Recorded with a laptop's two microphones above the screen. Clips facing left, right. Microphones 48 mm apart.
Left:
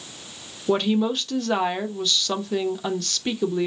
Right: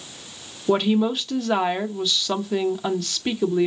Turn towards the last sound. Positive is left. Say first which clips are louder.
# right 2 dB
turn(degrees=-10)  # may be behind; listen again after turning